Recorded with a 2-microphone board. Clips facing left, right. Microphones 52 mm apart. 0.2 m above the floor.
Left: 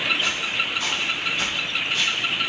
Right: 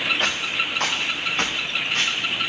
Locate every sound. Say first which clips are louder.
0.2 s footsteps: right 1 dB; 60° right (ahead or behind), 1.8 m; by 2.5 s 40° right (ahead or behind), 3 m